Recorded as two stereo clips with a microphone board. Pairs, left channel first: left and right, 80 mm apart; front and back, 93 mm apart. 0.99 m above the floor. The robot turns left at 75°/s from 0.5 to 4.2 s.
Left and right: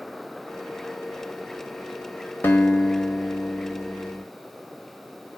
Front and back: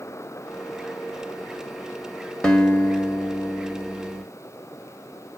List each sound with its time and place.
2.4 s a guitar: 70° left, 0.8 m; by 4.2 s 60° right, 0.8 m